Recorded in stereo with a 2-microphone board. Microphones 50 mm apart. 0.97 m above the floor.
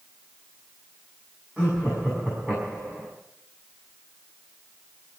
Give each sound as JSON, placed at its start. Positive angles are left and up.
{"t": 1.6, "sound": "laughter", "side_deg": -25, "distance_m": 6.5}